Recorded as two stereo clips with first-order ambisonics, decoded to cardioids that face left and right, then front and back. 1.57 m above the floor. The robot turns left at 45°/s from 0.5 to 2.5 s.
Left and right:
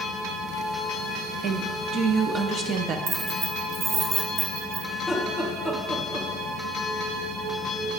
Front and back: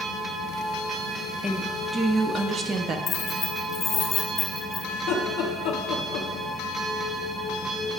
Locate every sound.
1.4 s a woman speaking: 75° right, 0.6 m; by 3.0 s 125° right, 0.6 m
3.1 s keys jangling: 65° right, 1.1 m
4.9 s laughter: 5° left, 0.9 m